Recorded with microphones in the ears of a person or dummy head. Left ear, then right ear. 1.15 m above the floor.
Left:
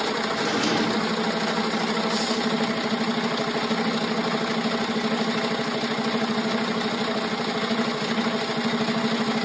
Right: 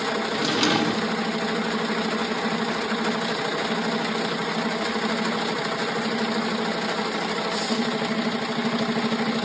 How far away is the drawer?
About 1.3 m.